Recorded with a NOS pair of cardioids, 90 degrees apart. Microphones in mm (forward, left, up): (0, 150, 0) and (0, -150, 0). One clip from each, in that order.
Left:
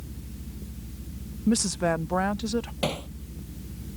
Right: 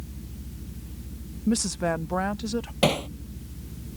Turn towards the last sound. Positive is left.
turn(degrees=-45)